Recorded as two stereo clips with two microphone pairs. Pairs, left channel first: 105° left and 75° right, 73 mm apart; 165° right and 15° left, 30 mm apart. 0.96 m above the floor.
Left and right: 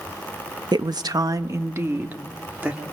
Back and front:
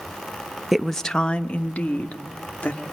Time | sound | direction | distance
0.7 | a woman speaking | 70° right | 0.7 m